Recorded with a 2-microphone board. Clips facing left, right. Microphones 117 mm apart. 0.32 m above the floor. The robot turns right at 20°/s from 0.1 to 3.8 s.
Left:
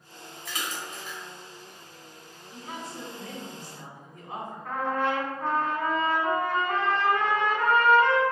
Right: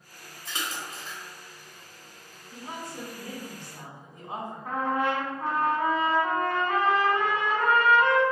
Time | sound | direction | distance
0.5 | a splash | 25° right (ahead or behind) | 0.9 m
2.5 | a woman speaking | 30° right (ahead or behind) | 1.5 m
4.7 | a trumpet | 15° right (ahead or behind) | 0.8 m